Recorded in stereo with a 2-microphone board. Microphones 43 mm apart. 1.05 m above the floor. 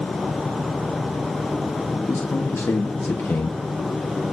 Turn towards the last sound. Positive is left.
turn(degrees=70)  # may be behind; listen again after turning